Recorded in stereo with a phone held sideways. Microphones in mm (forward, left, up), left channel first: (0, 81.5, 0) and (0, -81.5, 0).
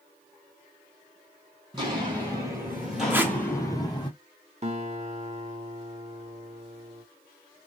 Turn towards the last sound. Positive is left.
turn(degrees=-45)  # may be behind; listen again after turning